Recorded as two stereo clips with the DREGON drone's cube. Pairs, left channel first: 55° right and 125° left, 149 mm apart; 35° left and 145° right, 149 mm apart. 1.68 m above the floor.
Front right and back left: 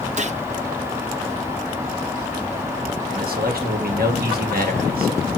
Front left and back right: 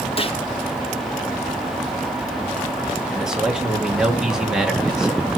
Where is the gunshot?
85° left, 1.1 m.